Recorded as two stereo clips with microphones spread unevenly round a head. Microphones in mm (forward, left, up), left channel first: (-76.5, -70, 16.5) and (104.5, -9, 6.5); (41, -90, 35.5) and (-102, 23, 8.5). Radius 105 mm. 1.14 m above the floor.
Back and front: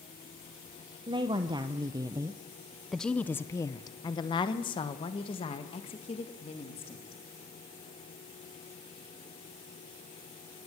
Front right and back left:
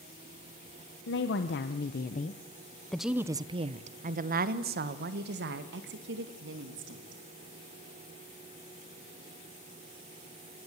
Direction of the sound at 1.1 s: 40° right.